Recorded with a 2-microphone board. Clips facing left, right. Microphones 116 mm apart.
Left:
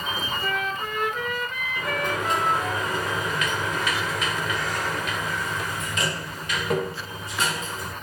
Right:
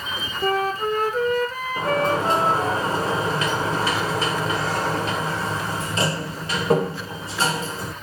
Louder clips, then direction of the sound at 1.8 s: Right 7 dB; 30° right (ahead or behind).